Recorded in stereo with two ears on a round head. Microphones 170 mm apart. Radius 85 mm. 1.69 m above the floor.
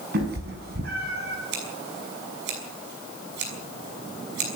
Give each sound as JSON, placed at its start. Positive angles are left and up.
{"t": 0.1, "sound": "a cat meowing", "side_deg": -55, "distance_m": 6.0}
{"t": 1.5, "sound": "scissors", "side_deg": -60, "distance_m": 6.0}